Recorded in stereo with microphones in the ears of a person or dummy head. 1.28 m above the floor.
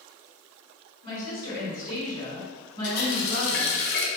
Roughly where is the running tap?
Left.